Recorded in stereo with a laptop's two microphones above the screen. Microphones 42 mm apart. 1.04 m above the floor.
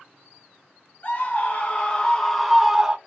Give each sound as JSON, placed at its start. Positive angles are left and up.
{"t": 1.0, "sound": "a scream", "side_deg": 40, "distance_m": 1.2}